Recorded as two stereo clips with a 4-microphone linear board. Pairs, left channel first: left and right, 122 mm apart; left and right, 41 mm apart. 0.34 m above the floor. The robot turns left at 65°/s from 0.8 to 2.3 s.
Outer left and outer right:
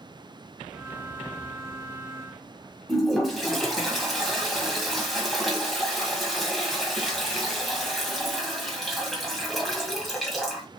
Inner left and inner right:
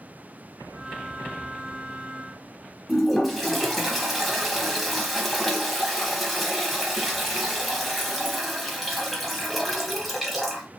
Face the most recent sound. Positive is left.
turn(degrees=0)  # may be behind; listen again after turning